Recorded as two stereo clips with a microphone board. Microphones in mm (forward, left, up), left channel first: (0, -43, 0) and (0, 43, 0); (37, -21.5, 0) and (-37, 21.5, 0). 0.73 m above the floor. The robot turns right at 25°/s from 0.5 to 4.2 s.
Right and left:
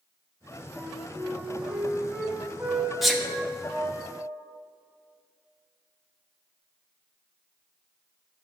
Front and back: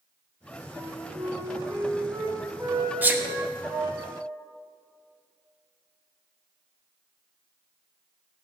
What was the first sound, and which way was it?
A flute, 125° left.